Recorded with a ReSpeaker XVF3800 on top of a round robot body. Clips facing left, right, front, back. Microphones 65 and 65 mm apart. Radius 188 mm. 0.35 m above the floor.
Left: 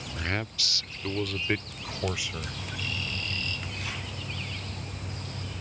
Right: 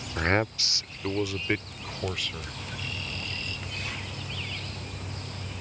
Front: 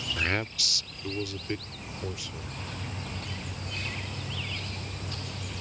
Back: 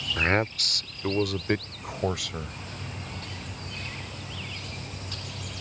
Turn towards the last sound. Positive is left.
turn(degrees=165)